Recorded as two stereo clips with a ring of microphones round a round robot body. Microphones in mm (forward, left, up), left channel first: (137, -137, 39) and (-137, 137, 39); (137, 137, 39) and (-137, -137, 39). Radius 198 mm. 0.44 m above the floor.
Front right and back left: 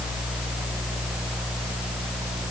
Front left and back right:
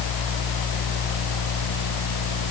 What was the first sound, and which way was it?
Only background noise.